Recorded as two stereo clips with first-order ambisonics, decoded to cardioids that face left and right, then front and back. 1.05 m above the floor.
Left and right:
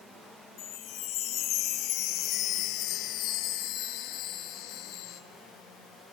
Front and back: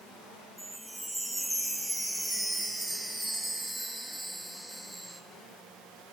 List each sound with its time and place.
0.6 s a chime: 95° left, 0.5 m